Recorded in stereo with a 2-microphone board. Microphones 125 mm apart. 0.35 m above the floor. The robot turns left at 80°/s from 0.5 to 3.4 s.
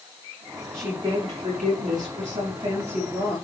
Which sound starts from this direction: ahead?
A woman speaking, at 0.7 s.